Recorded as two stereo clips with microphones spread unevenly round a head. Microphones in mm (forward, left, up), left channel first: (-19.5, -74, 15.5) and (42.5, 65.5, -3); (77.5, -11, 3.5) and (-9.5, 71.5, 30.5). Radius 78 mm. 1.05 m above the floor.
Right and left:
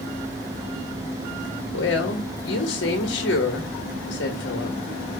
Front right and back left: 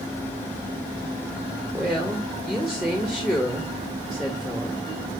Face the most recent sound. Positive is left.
turn(degrees=-130)